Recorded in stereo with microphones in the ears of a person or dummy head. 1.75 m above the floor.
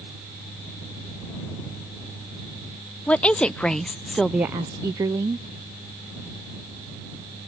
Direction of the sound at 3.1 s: 5° left (ahead or behind).